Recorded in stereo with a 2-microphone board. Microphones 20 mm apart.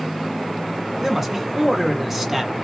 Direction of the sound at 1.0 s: 20° right (ahead or behind).